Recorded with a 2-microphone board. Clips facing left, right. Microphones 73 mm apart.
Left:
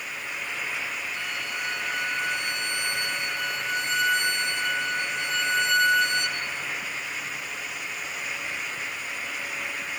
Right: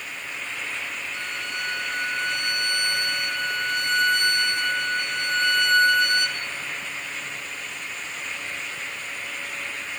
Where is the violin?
55° right (ahead or behind), 1.4 m.